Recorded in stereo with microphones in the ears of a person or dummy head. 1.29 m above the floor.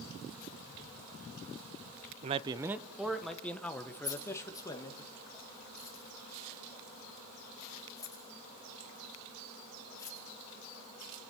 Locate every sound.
2.2 s a man speaking: 35° right (ahead or behind), 0.6 m; by 5.0 s 15° left (ahead or behind), 2 m
4.0 s keys jangling: 25° left (ahead or behind), 8 m